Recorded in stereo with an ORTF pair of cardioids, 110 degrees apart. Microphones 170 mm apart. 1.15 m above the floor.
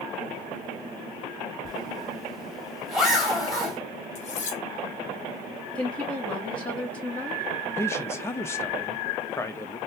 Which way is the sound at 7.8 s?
15° left.